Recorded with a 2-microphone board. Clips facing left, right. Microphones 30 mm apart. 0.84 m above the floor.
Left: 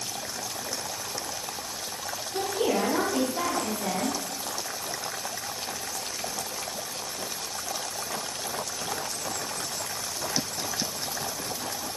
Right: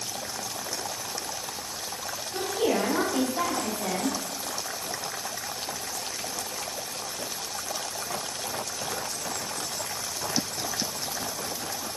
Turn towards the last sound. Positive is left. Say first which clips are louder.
# even
turn(degrees=15)  # may be behind; listen again after turning